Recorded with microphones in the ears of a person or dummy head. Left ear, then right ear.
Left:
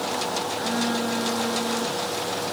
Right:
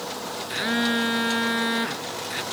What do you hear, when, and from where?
0.5 s a phone buzzing: 45° right (ahead or behind), 0.7 m